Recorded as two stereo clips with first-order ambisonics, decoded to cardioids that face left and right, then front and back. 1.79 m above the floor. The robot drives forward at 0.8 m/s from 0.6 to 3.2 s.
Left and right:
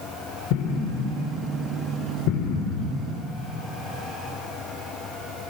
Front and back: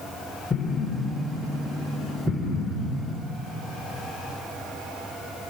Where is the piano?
No piano in this recording.